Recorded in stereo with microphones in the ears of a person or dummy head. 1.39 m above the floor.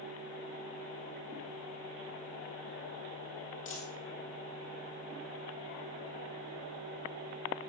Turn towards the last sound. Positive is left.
turn(degrees=45)  # may be behind; listen again after turning